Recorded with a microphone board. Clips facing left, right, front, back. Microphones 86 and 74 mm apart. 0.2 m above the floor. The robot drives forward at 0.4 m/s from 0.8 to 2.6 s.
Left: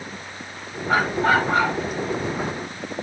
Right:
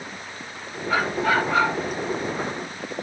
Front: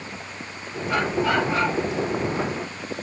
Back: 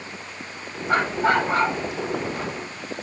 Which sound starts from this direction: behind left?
A dog barking, at 0.9 s.